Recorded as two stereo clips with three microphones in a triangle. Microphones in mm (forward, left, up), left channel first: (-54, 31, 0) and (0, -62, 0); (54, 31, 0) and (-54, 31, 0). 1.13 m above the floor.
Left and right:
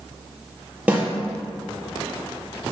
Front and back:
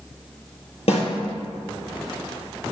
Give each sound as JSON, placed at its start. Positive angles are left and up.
{"t": 0.9, "sound": "a snare drum", "azimuth_deg": 15, "distance_m": 4.0}